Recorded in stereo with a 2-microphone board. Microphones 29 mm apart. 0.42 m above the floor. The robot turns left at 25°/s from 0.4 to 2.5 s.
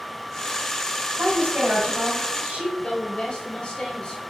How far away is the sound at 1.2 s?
About 2 m.